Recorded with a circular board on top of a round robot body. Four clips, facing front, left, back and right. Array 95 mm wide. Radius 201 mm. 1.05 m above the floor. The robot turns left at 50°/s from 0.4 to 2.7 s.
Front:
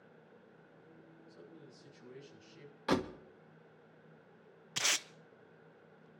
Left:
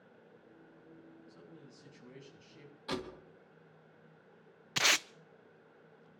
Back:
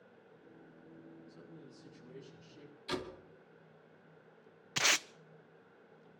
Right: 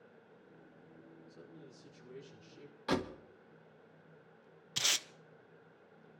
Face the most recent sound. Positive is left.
turn(degrees=120)